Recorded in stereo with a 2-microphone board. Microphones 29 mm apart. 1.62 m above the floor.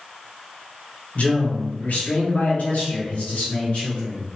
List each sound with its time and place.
1.1 s a man speaking: 75° left (ahead or behind), 1.3 m; by 4.2 s 50° left (ahead or behind), 2 m